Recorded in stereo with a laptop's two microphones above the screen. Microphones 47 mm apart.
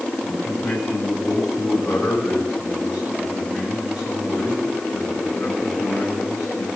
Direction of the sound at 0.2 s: 20° right (ahead or behind).